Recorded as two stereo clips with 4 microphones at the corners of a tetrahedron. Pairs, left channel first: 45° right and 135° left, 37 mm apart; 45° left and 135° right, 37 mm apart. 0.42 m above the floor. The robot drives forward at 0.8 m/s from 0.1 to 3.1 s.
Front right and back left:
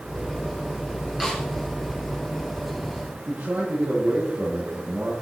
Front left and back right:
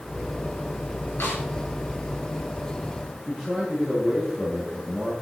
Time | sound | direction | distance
1.2 | a snare drum | 50° left | 5.5 m
3.3 | a man speaking | 125° left | 8.5 m